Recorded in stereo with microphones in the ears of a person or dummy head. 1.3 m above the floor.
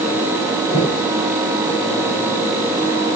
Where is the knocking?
25° left (ahead or behind), 9 m.